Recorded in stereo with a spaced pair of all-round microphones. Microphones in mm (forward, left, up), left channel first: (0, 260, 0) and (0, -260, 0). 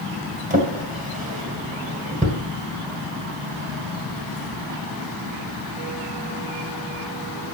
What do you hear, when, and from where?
0.5 s a drawer: 15° right (ahead or behind), 1.6 m